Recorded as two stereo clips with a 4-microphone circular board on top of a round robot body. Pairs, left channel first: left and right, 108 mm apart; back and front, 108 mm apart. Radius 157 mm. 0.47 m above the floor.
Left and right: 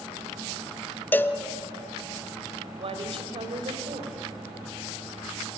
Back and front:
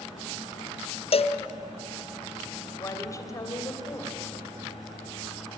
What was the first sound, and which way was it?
A cowbell, 160° left.